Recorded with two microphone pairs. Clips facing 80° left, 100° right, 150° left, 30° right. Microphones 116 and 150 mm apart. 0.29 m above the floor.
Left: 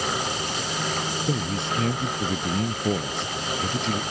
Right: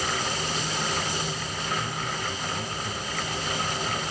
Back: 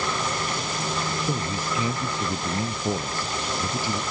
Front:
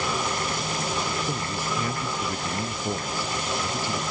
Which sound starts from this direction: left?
A man speaking, at 1.2 s.